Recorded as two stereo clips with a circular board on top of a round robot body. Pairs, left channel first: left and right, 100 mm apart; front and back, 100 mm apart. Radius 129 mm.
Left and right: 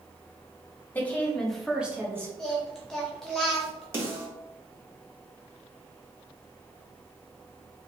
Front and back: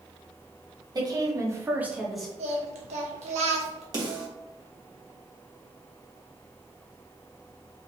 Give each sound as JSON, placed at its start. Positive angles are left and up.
{"t": 0.9, "sound": "a woman speaking", "azimuth_deg": 155, "distance_m": 1.5}
{"t": 2.4, "sound": "singing", "azimuth_deg": 175, "distance_m": 0.5}
{"t": 3.9, "sound": "a snare drum", "azimuth_deg": -145, "distance_m": 2.0}